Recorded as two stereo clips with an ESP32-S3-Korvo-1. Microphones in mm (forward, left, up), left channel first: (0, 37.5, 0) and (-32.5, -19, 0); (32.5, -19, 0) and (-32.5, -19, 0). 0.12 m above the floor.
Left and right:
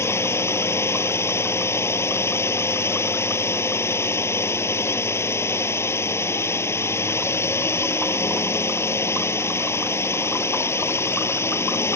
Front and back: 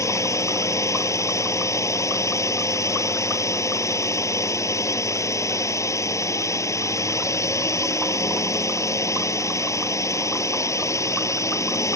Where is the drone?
20° left.